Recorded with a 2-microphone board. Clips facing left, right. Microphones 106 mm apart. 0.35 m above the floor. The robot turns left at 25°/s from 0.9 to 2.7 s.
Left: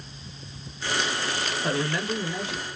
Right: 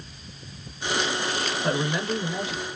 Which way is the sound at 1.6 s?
5° right (ahead or behind).